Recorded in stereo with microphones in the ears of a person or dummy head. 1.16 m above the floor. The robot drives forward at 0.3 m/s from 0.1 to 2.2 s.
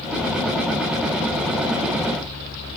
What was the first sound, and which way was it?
Only background noise.